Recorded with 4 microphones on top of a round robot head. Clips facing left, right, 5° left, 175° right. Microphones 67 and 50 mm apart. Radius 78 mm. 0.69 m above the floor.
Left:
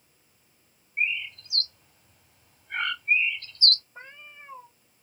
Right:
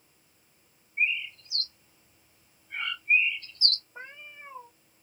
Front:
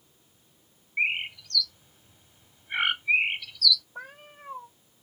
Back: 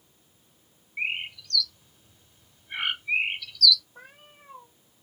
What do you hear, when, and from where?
1.0 s a bird: 70° left, 0.7 m
4.0 s a cat meowing: 15° right, 0.6 m